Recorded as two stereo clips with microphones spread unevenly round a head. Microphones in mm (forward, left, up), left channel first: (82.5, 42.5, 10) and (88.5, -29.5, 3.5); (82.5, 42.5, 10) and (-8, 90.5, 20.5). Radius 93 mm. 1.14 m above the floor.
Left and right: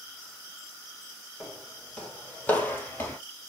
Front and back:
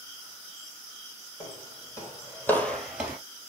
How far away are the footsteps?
About 3 m.